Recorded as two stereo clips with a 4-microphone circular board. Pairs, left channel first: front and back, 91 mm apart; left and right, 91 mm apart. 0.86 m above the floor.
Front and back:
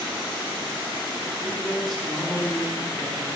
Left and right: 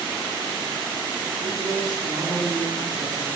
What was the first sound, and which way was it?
A man speaking, 100° right.